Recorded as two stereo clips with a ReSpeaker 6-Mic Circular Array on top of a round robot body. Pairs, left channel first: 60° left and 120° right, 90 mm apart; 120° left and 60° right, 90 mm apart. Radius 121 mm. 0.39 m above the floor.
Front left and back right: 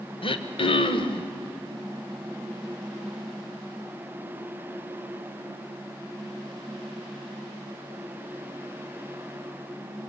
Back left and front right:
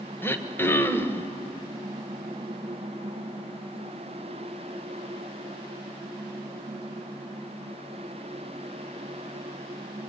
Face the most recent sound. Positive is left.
turn(degrees=55)